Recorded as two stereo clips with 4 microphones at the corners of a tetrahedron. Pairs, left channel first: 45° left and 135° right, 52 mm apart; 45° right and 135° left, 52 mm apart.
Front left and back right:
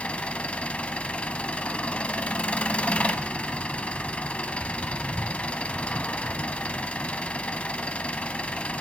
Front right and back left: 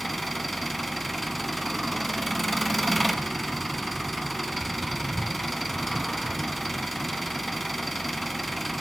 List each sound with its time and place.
0.0 s an engine running: 40° left, 0.7 m